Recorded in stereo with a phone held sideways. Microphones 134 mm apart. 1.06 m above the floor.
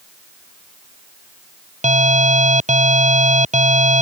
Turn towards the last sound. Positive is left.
turn(degrees=-60)  # may be behind; listen again after turning